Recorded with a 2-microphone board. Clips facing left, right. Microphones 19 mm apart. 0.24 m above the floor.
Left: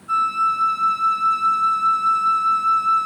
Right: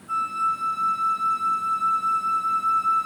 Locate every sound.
0.1 s a flute: 30° left (ahead or behind), 0.6 m